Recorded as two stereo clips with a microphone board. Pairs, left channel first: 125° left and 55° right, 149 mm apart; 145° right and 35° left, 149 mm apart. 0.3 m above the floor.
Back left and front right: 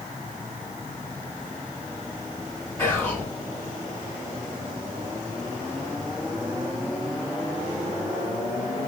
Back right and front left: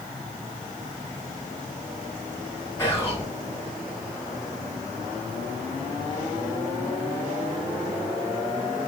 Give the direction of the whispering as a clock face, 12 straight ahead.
6 o'clock.